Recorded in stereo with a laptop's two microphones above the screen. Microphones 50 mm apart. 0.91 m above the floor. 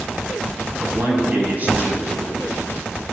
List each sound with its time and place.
0.8 s a man speaking: 35° right (ahead or behind), 7.5 m